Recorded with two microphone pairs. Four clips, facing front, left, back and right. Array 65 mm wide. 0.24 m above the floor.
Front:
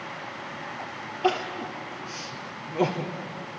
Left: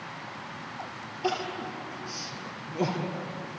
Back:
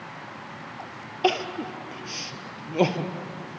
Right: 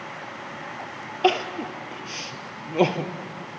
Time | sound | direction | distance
1.2 | crying | 120° right | 1.9 m